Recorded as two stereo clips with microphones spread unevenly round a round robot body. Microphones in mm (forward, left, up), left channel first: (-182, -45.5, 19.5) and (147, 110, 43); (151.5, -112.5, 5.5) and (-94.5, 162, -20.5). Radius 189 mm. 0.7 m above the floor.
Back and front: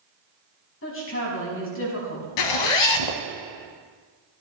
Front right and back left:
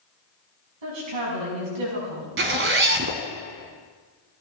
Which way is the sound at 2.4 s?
165° right.